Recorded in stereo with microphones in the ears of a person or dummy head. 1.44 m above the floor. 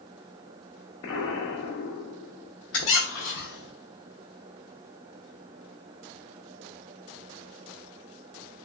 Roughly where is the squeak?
Left.